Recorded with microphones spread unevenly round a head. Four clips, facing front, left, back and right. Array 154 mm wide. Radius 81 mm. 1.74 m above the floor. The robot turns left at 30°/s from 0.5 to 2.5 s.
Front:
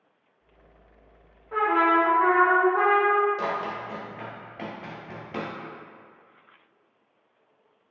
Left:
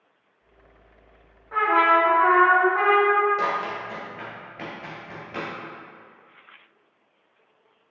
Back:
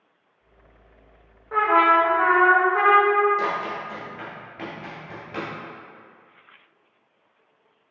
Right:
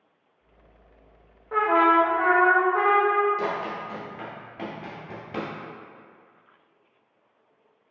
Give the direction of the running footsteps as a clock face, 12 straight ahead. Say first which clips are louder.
Left 2 dB, back 3 dB; 8 o'clock.